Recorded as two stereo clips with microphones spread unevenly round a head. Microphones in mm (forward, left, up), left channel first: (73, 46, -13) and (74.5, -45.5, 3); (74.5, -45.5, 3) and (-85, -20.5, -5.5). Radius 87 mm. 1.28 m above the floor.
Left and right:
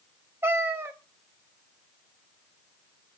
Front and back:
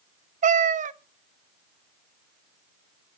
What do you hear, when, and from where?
0.4 s a cat meowing: 150° right, 0.8 m